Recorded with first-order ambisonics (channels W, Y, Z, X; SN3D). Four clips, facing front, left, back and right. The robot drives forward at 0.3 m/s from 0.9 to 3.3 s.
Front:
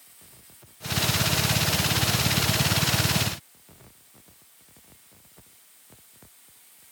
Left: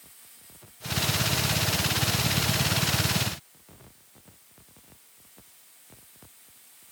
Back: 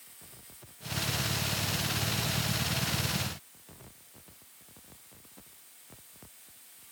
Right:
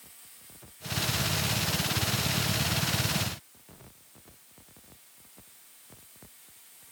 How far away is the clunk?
No clunk in this recording.